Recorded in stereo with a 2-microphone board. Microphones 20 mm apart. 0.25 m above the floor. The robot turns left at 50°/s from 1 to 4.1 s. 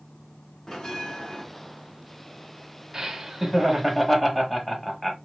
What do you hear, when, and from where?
0.7 s a bell: 25° left (ahead or behind), 1.2 m; by 1.4 s 45° left (ahead or behind), 1.2 m
2.9 s laughter: 130° right, 1.2 m; by 5.2 s 175° left, 1.2 m